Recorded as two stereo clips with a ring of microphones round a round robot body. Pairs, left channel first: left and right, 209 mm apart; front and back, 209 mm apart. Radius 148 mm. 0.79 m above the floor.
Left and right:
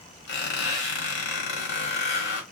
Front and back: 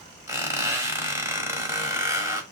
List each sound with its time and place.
0.3 s a squeak: 100° left, 1.1 m